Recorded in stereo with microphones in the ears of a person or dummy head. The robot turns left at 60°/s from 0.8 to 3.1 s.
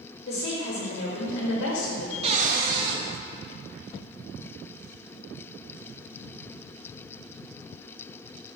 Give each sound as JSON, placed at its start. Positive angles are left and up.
{"t": 0.3, "sound": "a woman speaking", "azimuth_deg": 130, "distance_m": 1.6}
{"t": 2.2, "sound": "a cupboard door", "azimuth_deg": -30, "distance_m": 0.9}